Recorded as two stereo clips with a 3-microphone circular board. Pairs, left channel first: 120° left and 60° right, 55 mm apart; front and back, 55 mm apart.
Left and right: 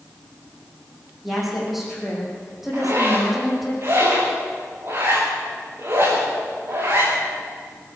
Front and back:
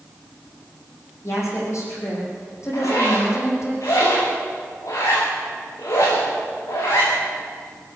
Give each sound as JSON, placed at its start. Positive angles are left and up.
{"t": 1.2, "sound": "a woman speaking", "azimuth_deg": 25, "distance_m": 8.0}
{"t": 2.7, "sound": "a zipper", "azimuth_deg": -20, "distance_m": 7.0}